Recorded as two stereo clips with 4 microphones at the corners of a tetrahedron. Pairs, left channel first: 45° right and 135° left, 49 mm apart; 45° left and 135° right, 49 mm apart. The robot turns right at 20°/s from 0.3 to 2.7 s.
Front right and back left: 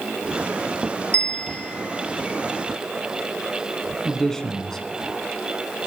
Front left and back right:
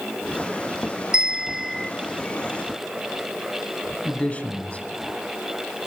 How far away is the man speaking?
About 1.2 m.